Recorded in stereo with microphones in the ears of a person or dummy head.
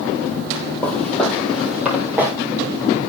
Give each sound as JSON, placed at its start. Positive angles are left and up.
{"t": 0.8, "sound": "footsteps", "side_deg": 10, "distance_m": 3.0}